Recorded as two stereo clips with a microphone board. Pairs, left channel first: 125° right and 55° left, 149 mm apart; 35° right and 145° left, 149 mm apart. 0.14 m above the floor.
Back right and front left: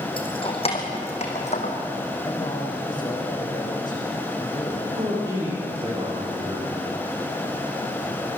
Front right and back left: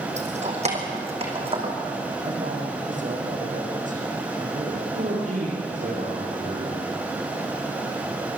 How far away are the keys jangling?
About 3.5 m.